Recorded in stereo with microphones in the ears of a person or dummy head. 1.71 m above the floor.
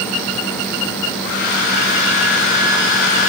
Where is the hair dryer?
55° left (ahead or behind), 1.8 m.